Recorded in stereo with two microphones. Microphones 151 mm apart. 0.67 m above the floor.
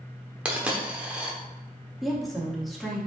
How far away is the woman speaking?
About 1.1 m.